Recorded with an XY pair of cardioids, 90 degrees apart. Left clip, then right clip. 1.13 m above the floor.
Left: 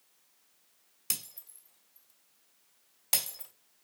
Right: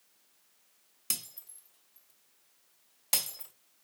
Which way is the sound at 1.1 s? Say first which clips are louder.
Right 1 dB; 10° left.